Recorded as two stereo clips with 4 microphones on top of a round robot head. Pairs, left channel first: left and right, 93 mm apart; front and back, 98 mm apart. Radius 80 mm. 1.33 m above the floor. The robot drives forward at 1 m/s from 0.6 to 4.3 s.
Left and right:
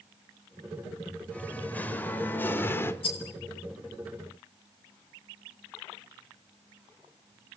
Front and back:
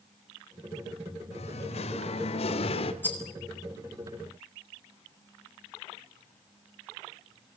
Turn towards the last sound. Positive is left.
turn(degrees=85)